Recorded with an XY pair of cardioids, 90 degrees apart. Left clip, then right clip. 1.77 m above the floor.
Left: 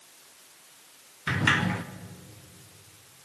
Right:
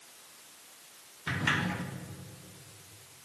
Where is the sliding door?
45° left, 1.0 m.